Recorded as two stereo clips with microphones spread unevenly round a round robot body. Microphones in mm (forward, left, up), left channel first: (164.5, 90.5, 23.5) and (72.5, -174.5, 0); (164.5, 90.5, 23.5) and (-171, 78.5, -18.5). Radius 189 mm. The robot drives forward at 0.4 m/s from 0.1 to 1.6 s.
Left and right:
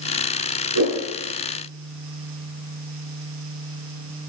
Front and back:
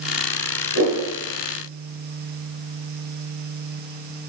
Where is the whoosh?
120° right, 7 m.